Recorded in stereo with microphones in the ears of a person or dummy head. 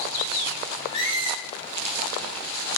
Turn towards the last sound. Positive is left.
turn(degrees=25)  # may be behind; listen again after turning